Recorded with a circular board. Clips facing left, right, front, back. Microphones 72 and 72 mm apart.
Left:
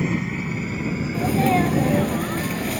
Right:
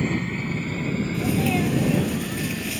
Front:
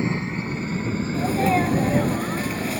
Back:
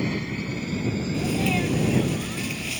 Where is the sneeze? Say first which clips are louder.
Left 5 dB, front 6 dB; 50° left.